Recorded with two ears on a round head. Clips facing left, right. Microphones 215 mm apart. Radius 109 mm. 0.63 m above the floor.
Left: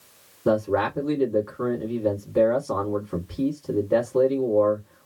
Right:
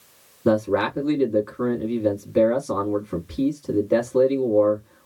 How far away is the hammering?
No hammering in this recording.